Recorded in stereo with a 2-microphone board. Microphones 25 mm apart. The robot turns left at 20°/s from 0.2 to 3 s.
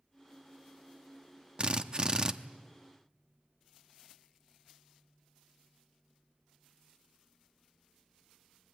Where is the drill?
35° right (ahead or behind), 0.8 m; by 2.3 s 25° right (ahead or behind), 0.8 m.